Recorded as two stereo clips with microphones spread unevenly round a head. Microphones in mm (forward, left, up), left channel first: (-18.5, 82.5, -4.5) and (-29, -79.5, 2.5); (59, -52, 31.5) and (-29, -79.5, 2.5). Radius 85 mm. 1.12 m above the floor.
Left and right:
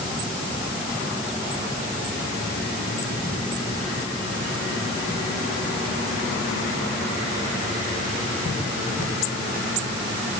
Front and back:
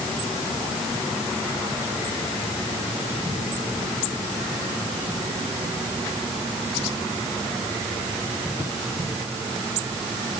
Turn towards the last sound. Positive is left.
No sound to turn to.